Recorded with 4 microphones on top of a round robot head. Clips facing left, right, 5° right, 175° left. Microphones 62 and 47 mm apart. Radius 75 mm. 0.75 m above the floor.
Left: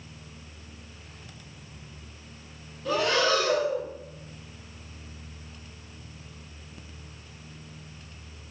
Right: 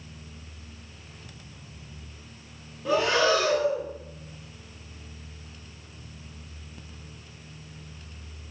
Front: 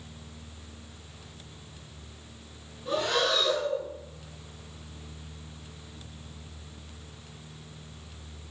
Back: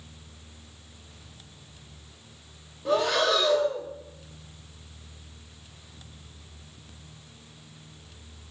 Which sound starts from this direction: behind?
Breathing, at 2.9 s.